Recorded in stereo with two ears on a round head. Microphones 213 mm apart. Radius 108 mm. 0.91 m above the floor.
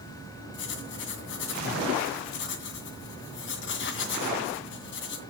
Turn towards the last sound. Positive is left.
turn(degrees=45)  # may be behind; listen again after turning